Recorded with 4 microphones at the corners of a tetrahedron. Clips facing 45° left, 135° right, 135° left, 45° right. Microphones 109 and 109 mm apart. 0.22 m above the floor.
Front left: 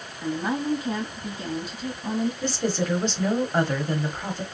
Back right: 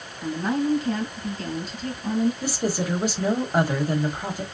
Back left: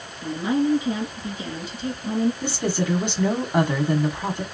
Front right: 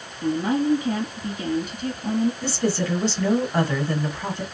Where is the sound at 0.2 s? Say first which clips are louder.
Back right 2 dB, front right 1 dB; 25° right, 2 m.